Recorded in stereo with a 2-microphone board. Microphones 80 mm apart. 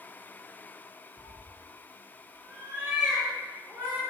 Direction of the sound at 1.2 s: 80° right.